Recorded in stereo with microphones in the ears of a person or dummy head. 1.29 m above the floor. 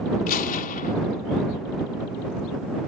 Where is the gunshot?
45° left (ahead or behind).